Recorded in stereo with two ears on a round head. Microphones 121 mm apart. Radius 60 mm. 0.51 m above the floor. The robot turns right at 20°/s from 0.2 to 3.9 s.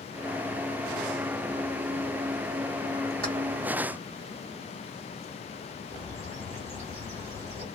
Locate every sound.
3.2 s keys jangling: 70° right (ahead or behind), 1.5 m
5.9 s a bird: 55° right (ahead or behind), 2 m